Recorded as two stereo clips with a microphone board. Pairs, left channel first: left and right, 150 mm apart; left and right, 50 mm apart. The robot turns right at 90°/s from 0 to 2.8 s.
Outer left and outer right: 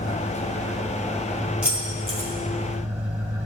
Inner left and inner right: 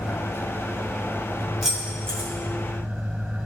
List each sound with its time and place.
0.0 s an engine running: 55° left, 2 m; by 3.5 s 55° right, 2 m
1.6 s keys jangling: 5° right (ahead or behind), 2.5 m; by 2.3 s 60° right (ahead or behind), 2.5 m